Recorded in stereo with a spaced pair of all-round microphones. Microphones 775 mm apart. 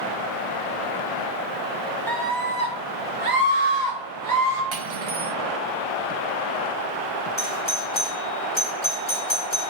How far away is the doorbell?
About 0.9 m.